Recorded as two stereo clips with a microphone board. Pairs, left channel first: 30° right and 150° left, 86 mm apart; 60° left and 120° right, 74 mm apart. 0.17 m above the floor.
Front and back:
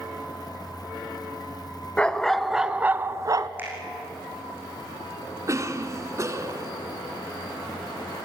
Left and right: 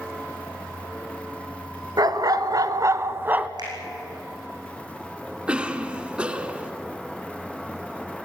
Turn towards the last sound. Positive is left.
turn(degrees=175)